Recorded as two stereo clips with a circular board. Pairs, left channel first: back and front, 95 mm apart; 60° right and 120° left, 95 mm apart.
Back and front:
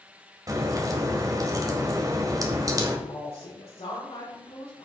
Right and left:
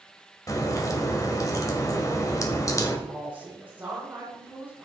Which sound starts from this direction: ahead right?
A crack, at 0.5 s.